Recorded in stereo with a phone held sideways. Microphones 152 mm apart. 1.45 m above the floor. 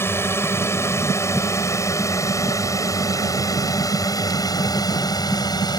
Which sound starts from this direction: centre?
A drone, at 0.0 s.